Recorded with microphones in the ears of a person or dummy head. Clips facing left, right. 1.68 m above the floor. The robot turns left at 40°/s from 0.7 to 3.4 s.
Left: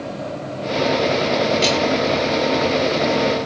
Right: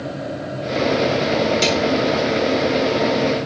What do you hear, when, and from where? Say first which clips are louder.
1.6 s a snare drum: even; 75° right (ahead or behind), 3.5 m; by 1.8 s 70° right (ahead or behind), 3.5 m